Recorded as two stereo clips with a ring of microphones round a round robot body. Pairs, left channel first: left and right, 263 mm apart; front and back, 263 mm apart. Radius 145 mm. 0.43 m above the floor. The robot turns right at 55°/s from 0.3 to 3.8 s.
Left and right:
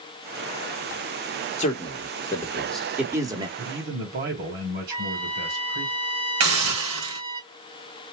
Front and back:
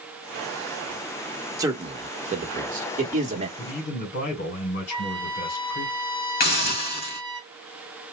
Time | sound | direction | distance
1.6 | a man speaking | 115° left | 1.2 m
3.6 | a man speaking | 50° right | 1.8 m
4.9 | a trumpet | 55° right | 2.5 m
6.4 | a hiss | 55° right | 2.5 m